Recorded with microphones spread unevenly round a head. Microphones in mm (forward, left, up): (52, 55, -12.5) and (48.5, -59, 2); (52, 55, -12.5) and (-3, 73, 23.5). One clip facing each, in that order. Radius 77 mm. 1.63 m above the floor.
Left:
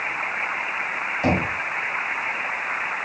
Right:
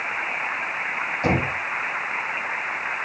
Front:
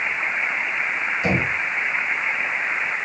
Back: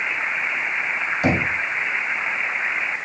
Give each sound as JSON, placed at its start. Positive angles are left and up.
{"t": 1.2, "sound": "knocking", "azimuth_deg": 170, "distance_m": 2.5}